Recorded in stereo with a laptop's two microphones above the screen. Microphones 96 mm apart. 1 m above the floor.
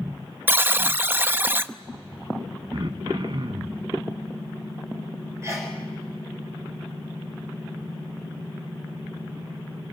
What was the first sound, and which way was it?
A buzzer, 20° right (ahead or behind).